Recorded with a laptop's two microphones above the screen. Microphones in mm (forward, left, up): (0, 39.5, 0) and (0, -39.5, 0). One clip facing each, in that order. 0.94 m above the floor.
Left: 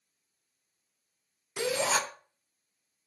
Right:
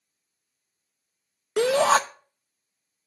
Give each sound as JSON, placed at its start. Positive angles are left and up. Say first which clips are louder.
{"t": 1.6, "sound": "a shout", "louder": "right 10 dB", "side_deg": -70, "distance_m": 0.6}